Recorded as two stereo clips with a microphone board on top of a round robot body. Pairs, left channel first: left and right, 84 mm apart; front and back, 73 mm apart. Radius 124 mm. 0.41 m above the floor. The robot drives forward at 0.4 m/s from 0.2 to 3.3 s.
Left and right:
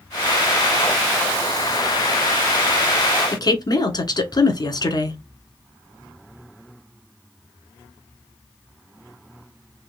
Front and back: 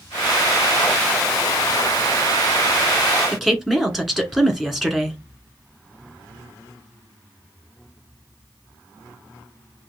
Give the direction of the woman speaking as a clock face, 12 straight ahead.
9 o'clock.